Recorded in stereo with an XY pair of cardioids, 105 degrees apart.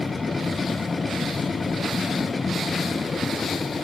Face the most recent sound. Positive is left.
turn(degrees=25)